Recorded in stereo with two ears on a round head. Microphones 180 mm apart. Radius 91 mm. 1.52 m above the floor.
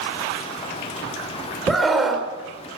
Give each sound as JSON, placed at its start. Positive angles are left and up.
{"t": 1.7, "sound": "a scream", "side_deg": 0, "distance_m": 4.5}